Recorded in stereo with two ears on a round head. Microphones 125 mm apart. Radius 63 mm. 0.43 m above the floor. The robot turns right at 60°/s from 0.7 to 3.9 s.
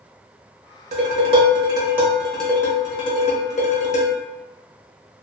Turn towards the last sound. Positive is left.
turn(degrees=95)